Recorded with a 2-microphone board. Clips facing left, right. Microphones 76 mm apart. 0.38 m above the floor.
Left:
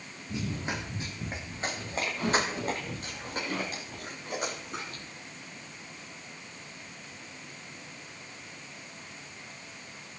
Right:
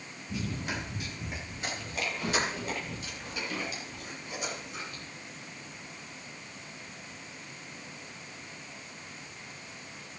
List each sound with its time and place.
0.3 s running footsteps: 25° left (ahead or behind), 4.5 m; by 5.0 s 55° left (ahead or behind), 6 m